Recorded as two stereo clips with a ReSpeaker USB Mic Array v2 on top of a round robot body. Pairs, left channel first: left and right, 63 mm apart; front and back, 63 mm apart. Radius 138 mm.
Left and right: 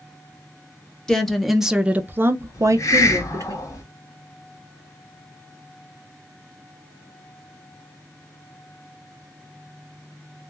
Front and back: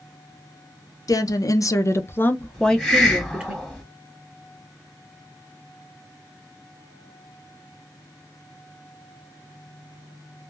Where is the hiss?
80° left, 1.4 m.